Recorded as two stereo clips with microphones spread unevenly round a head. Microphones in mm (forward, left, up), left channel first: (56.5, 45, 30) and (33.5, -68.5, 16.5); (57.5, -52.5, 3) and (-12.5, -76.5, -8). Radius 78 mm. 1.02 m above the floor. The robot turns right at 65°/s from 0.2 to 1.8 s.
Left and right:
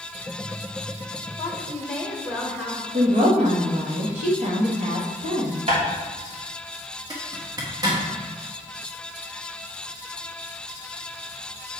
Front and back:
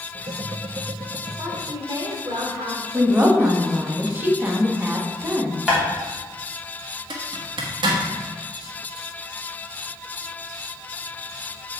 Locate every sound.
1.4 s a woman speaking: 140° left, 1.2 m; by 2.8 s 165° left, 1.2 m
2.9 s a woman speaking: 100° right, 1.6 m
5.7 s tapping: 85° right, 3 m
7.1 s a zipper: 165° right, 1.2 m